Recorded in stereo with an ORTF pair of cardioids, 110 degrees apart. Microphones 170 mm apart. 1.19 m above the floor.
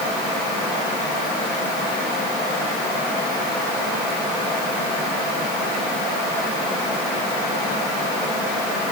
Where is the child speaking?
No child speaking in this recording.